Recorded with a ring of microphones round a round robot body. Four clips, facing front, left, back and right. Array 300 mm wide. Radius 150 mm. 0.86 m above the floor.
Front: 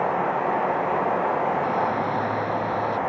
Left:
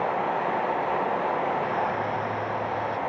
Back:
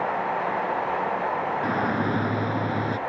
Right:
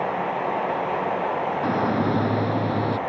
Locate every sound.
1.6 s a shout: 110° right; by 3.0 s 115° right